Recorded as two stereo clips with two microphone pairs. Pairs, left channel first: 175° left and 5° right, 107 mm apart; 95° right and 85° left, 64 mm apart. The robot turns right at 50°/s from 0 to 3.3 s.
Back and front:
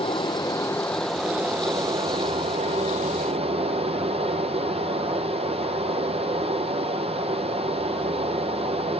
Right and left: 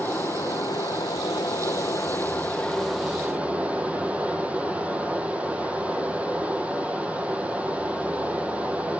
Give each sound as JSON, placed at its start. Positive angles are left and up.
{"t": 0.0, "sound": "running water", "azimuth_deg": -150, "distance_m": 0.8}